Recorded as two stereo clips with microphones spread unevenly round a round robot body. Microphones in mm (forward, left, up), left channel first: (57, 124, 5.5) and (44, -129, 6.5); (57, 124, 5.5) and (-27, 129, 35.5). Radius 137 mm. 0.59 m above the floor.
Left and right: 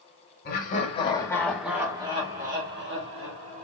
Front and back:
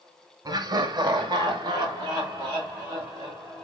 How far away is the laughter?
About 1.1 m.